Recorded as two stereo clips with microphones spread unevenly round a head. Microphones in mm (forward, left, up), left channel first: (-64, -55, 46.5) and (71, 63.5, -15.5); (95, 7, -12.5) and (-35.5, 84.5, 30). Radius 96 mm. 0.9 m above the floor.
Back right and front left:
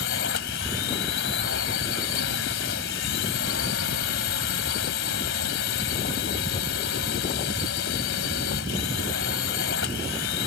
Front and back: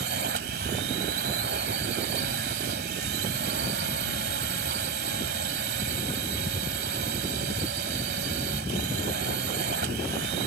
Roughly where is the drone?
Behind.